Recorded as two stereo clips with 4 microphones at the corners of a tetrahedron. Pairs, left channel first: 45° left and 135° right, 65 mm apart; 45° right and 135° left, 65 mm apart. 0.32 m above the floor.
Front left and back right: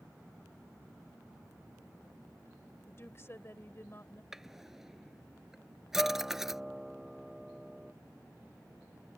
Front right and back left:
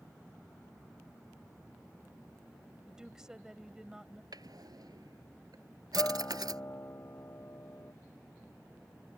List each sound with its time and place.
2.9 s a woman speaking: 60° left
4.3 s a drawer: 140° left
6.0 s a guitar: 50° right